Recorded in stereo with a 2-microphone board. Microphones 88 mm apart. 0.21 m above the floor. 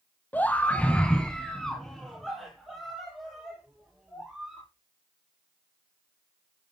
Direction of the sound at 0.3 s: 20° left (ahead or behind).